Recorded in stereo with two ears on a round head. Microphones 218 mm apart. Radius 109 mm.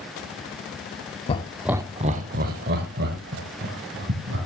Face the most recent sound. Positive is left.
turn(degrees=-50)  # may be behind; listen again after turning